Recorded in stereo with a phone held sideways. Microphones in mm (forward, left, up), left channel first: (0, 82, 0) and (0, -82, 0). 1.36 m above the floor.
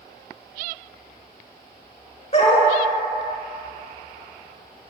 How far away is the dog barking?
About 1.2 m.